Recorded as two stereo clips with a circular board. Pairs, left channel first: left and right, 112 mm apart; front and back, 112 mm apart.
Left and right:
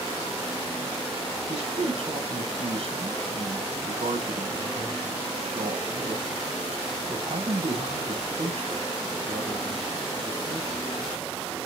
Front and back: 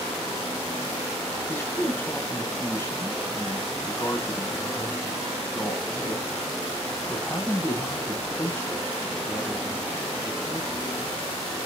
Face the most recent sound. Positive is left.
turn(degrees=-65)